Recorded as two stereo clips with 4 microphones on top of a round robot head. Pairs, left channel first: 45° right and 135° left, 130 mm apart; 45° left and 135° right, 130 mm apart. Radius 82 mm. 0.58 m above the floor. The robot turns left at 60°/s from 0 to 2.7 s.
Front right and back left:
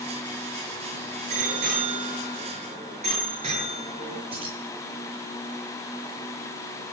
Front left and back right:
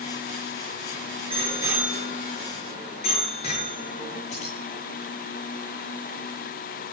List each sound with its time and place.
1.3 s a bicycle bell: 175° left, 7 m; by 4.2 s 90° left, 7 m
4.3 s keys jangling: 85° left, 10 m